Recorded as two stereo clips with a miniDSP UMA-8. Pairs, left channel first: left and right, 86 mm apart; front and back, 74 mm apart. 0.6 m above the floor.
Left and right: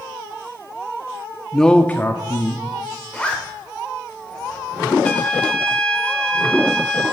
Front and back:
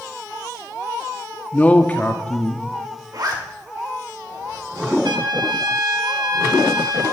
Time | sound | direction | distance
1.5 | a man speaking | 10° left | 0.6 m
3.1 | a zipper | 165° left | 2 m
5.0 | a trumpet | 165° left | 1.9 m